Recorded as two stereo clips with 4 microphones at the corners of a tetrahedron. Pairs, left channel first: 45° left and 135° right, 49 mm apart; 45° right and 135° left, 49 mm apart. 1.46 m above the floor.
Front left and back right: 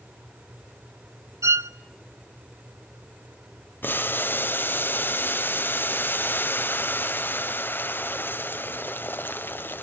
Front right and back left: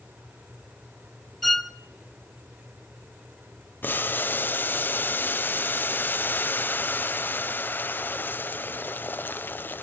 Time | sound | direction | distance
1.4 | a violin | 130° right | 0.7 m
3.8 | boiling | straight ahead | 0.7 m